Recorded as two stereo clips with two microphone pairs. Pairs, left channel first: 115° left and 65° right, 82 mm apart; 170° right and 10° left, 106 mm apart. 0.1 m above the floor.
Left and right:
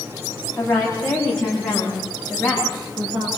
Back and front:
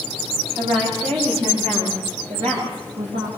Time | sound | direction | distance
0.6 | a woman speaking | 35° left | 8.5 m